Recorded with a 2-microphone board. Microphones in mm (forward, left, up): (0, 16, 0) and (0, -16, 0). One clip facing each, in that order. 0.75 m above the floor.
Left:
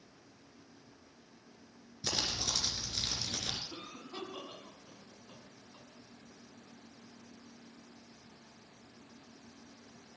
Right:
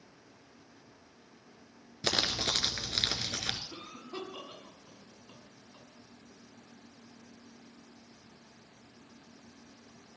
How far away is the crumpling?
About 1.6 m.